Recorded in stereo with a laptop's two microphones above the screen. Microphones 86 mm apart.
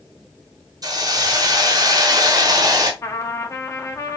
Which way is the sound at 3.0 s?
35° left (ahead or behind).